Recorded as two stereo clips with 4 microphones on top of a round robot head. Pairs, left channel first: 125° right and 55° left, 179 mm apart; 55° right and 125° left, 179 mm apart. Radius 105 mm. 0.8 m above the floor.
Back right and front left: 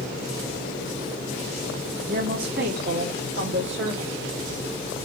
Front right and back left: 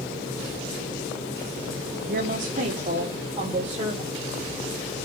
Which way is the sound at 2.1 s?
90° left.